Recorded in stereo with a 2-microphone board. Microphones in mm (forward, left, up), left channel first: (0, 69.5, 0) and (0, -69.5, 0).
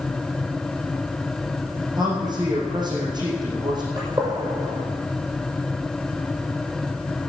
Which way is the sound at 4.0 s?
25° right (ahead or behind).